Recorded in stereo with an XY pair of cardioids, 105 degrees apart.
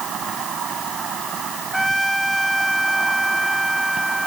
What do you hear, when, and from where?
0.0 s an insect: 60° right
1.7 s a trumpet: 15° right